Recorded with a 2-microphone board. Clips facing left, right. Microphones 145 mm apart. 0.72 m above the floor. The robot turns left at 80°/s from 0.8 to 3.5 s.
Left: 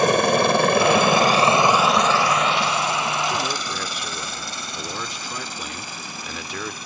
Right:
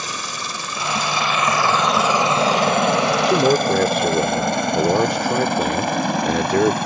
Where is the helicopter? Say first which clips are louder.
Left 14 dB; 60° left (ahead or behind); by 6.9 s 70° right (ahead or behind).